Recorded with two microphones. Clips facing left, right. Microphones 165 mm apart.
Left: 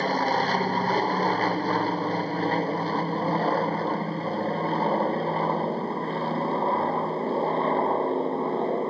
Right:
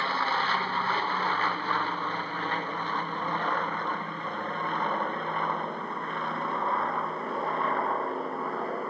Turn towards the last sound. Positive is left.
turn(degrees=30)  # may be behind; listen again after turning